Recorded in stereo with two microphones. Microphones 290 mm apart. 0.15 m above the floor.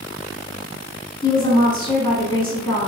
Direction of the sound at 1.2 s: 15° left (ahead or behind).